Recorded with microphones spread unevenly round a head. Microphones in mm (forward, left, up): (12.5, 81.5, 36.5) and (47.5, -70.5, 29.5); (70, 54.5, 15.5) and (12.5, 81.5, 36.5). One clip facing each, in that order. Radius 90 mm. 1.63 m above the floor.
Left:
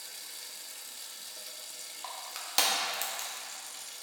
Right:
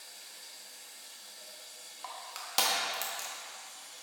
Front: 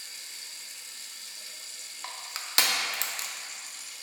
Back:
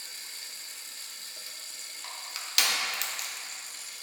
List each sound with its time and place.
0.0 s running water: 130° left, 0.9 m
2.0 s crushing: 25° left, 1.1 m